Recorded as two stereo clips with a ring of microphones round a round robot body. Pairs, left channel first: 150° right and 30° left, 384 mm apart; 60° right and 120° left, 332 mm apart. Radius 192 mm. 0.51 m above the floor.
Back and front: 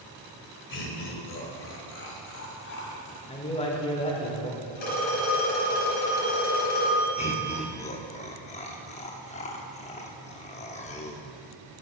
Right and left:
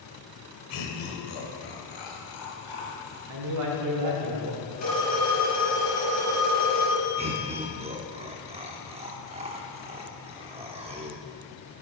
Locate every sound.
0.7 s laughter: 90° right, 1.9 m; by 3.2 s 95° right, 3.5 m
3.3 s a man speaking: 140° left, 1.9 m
4.8 s a phone ringing: 130° right, 4.5 m
7.2 s laughter: 165° left, 0.7 m